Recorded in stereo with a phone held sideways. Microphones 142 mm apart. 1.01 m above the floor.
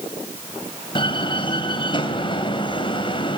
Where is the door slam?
35° left (ahead or behind), 3.5 m.